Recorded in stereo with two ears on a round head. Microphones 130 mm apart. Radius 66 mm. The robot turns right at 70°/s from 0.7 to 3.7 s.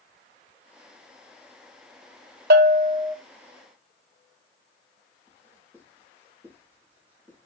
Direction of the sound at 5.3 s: 15° right (ahead or behind).